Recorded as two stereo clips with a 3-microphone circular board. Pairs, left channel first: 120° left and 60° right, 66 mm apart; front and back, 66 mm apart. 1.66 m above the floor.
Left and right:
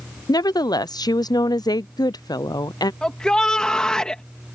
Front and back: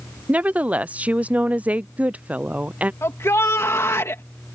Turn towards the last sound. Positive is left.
turn(degrees=45)